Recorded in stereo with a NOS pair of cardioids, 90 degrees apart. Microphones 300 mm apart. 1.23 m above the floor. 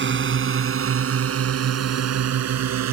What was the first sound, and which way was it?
A drone, 40° right.